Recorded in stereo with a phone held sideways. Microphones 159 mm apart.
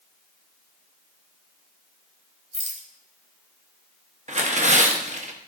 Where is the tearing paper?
50° right (ahead or behind), 1.1 m.